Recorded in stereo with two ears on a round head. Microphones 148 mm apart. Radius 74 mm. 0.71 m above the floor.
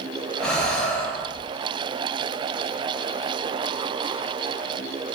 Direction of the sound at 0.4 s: 5° left (ahead or behind).